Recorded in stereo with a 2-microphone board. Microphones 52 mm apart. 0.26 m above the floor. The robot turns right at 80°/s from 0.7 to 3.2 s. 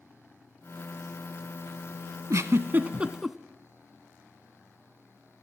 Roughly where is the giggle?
Right.